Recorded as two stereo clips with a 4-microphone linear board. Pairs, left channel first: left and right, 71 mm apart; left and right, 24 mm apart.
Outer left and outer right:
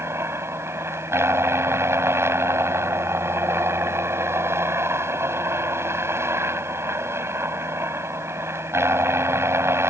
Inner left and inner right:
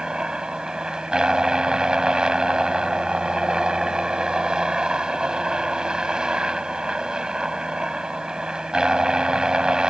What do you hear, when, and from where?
0.0 s a helicopter: 35° right (ahead or behind)